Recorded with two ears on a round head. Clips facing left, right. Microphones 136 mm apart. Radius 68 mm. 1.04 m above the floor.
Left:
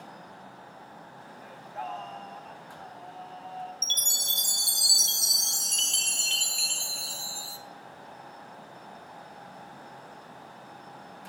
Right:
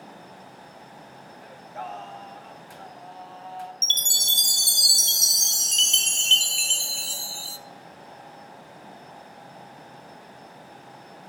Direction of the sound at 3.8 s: 25° right (ahead or behind).